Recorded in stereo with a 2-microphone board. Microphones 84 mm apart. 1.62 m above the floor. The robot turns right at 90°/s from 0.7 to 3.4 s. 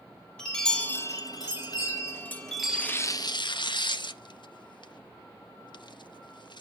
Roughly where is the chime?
Ahead.